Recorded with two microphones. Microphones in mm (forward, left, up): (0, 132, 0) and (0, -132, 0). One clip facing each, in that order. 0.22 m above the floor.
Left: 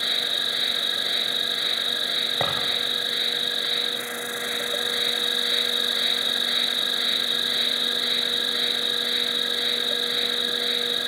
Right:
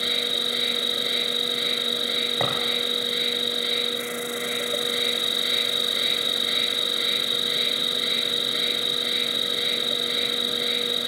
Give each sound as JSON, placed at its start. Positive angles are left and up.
{"t": 0.0, "sound": "an insect", "side_deg": -35, "distance_m": 2.0}
{"t": 2.4, "sound": "a drawer", "side_deg": 0, "distance_m": 7.5}